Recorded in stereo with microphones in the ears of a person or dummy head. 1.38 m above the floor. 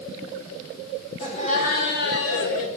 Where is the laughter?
35° left (ahead or behind), 1.3 m; by 2.7 s 75° left (ahead or behind), 1.3 m.